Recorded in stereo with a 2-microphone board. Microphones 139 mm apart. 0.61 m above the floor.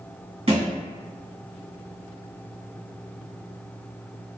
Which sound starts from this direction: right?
A thud, at 0.5 s.